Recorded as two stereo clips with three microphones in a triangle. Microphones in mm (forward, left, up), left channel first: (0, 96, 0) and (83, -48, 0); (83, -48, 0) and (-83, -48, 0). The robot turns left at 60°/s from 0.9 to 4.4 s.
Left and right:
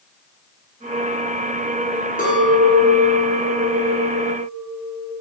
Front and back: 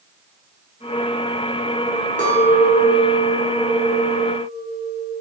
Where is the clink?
150° left, 0.7 m; by 5.1 s 15° left, 0.7 m.